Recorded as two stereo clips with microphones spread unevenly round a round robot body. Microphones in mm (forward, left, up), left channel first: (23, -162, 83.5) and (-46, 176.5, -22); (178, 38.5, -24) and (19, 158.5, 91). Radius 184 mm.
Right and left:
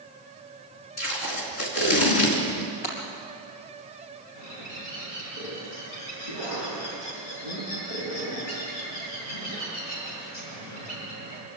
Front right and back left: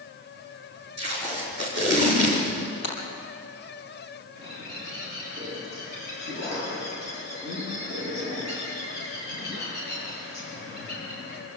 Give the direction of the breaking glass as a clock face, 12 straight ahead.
2 o'clock.